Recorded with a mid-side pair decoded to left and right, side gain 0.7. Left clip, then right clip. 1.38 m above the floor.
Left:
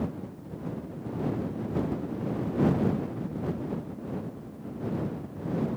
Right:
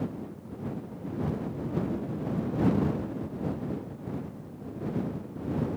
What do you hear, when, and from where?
Only background noise.